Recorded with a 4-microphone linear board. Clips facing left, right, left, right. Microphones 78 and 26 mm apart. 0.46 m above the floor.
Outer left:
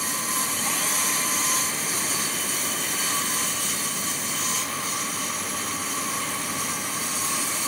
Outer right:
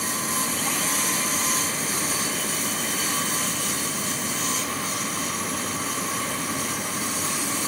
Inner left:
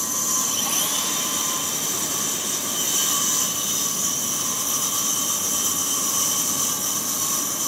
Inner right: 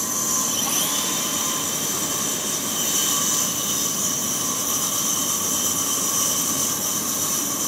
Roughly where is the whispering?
I don't hear whispering.